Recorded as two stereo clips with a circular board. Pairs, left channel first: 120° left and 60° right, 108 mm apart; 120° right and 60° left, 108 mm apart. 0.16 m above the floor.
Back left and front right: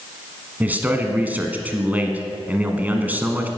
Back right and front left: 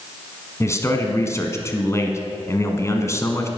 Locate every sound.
0.6 s a man speaking: 115° right, 1.1 m